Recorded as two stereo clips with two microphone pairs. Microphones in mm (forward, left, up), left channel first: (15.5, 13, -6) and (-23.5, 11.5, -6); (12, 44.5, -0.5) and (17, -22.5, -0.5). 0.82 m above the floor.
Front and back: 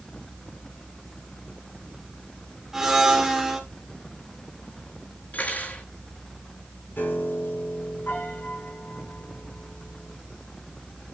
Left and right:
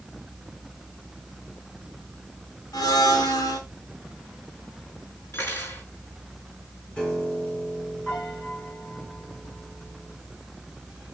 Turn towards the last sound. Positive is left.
turn(degrees=20)